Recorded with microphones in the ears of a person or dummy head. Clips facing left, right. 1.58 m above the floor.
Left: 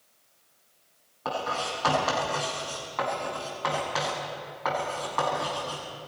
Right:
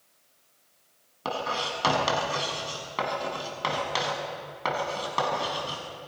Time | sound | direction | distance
1.2 | writing | 50° right (ahead or behind) | 7 m